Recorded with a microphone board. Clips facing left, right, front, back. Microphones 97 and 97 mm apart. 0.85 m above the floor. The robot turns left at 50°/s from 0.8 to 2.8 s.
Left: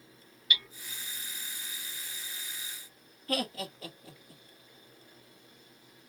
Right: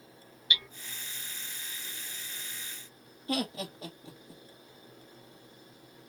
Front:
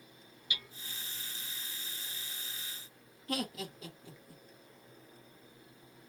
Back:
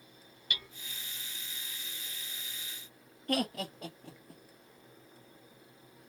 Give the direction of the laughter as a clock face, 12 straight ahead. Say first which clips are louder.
Right 1 dB, back 5 dB; 5 o'clock.